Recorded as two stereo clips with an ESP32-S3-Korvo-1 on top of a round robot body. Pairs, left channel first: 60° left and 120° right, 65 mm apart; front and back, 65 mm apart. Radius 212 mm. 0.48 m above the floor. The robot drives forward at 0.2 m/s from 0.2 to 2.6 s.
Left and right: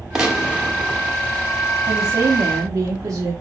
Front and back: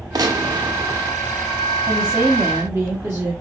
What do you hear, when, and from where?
0.1 s a gunshot: 160° left, 1.1 m
1.9 s a woman speaking: 120° right, 1.3 m; by 3.3 s 125° right, 1.4 m